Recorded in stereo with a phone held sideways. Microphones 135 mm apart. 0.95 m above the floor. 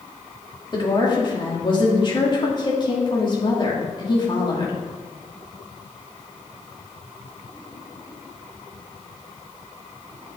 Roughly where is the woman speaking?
Left.